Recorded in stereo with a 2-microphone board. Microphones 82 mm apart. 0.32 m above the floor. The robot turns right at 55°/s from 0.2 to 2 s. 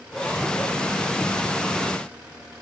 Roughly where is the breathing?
No breathing in this recording.